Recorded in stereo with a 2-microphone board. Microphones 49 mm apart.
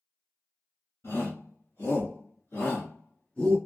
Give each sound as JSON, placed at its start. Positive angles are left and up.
{"t": 1.0, "sound": "a shout", "side_deg": 50, "distance_m": 1.8}